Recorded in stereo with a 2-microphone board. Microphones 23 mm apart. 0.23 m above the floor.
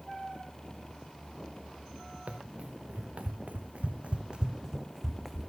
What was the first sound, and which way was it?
Running footsteps, 65° right (ahead or behind).